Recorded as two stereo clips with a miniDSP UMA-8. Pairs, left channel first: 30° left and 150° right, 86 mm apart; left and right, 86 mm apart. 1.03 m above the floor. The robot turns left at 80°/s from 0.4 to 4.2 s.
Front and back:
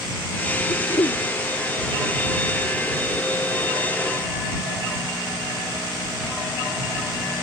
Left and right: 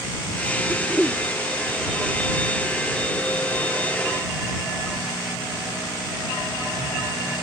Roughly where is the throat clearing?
Ahead left.